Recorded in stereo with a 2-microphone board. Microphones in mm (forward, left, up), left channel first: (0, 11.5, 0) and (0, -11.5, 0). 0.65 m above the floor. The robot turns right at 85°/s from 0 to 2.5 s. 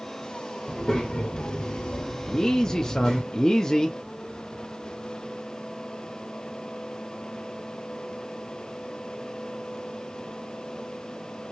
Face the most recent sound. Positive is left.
turn(degrees=25)  # may be behind; listen again after turning